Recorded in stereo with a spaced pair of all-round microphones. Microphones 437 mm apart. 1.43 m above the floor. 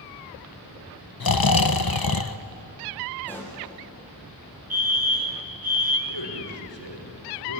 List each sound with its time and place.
1.2 s snoring: 55° left (ahead or behind), 0.8 m
3.2 s a pop: 5° left (ahead or behind), 6.5 m
4.7 s a fire alarm: 55° right (ahead or behind), 1.9 m
6.1 s a man speaking: 90° left, 5 m